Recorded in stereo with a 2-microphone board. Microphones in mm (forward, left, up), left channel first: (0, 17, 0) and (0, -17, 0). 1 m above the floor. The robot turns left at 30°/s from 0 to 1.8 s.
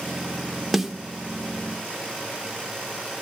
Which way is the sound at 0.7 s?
Centre (ahead or behind).